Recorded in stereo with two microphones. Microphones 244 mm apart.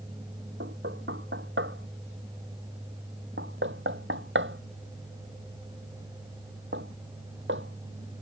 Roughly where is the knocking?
Right.